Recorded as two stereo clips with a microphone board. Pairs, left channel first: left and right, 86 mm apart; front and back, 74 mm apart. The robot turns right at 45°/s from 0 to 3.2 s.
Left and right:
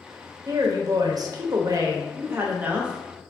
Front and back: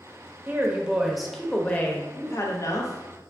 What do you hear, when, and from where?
0.5 s a woman speaking: 125° right, 0.6 m; by 3.3 s straight ahead, 0.6 m